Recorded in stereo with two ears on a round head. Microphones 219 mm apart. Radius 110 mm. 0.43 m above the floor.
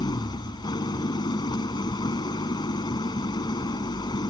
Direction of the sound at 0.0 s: 20° left (ahead or behind).